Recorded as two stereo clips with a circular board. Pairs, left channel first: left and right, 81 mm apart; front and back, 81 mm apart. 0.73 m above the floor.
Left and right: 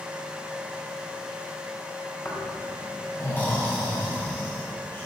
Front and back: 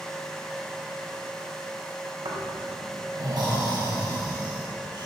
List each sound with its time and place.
2.2 s snoring: 150° left, 4.5 m